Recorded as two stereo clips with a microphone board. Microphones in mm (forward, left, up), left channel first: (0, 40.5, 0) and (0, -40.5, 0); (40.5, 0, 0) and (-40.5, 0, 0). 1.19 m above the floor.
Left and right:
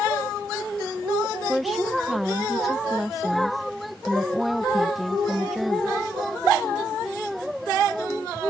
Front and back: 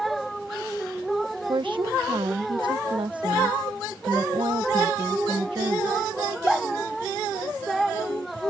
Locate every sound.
1.5 s a woman speaking: straight behind